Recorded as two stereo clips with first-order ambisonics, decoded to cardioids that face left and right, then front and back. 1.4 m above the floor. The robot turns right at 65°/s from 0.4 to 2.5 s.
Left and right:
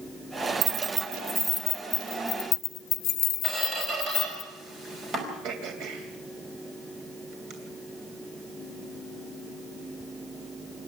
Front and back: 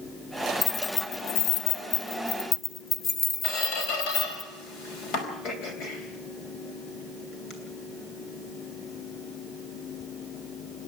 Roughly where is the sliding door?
No sliding door in this recording.